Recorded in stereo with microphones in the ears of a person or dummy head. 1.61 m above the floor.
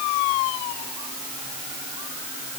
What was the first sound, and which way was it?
Only background noise.